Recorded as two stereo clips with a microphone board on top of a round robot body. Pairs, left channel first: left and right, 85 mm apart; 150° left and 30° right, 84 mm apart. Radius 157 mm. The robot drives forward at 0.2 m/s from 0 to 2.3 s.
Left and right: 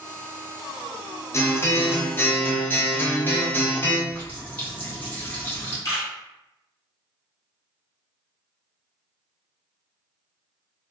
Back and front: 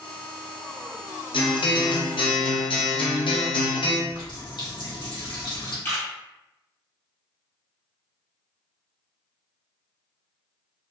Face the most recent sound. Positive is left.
turn(degrees=105)